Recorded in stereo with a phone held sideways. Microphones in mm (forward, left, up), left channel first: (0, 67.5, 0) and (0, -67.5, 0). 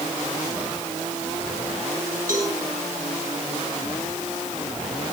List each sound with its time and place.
2.3 s a cowbell: 70° right (ahead or behind), 9 m